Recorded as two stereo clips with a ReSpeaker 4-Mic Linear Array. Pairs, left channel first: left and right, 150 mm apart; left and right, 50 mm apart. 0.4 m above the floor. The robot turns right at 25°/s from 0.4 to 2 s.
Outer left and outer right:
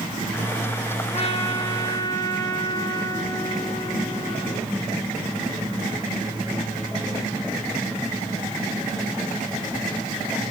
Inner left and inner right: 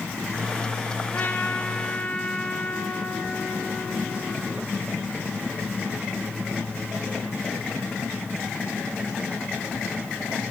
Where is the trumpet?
50° left (ahead or behind), 4.5 m; by 4.7 s 25° left (ahead or behind), 4.5 m.